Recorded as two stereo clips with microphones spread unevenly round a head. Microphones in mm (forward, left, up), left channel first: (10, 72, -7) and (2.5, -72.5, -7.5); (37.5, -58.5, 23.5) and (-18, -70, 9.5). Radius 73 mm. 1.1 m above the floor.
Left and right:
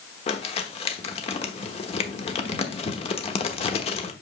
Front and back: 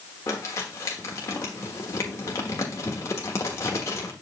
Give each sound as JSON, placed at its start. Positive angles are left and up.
{"t": 0.3, "sound": "crumpling", "azimuth_deg": 45, "distance_m": 1.1}